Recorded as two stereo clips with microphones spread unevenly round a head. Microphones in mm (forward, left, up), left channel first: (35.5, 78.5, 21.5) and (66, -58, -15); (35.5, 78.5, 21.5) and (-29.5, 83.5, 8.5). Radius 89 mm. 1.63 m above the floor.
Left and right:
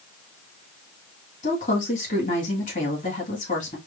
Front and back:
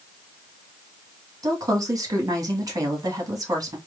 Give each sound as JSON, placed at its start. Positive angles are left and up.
{"t": 1.4, "sound": "a woman speaking", "azimuth_deg": 140, "distance_m": 2.0}